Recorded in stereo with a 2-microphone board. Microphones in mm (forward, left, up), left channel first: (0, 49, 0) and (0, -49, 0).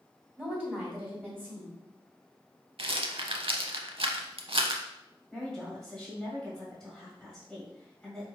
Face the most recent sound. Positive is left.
turn(degrees=5)  # may be behind; listen again after turning